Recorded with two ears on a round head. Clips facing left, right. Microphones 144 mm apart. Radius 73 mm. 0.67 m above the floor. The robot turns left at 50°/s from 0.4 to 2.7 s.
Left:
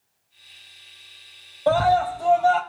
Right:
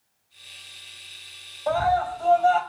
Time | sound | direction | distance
1.7 | a scream | 45° left | 3 m